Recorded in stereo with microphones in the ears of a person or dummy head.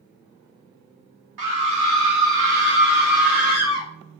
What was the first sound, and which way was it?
A scream, 70° right (ahead or behind).